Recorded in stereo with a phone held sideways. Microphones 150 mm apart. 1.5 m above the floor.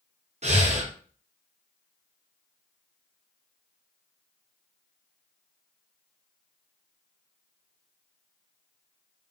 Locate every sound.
0.4 s breathing: 50° right (ahead or behind), 0.6 m